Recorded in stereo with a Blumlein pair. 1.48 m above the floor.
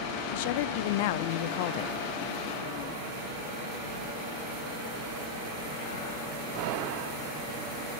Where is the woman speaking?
50° left, 0.6 m.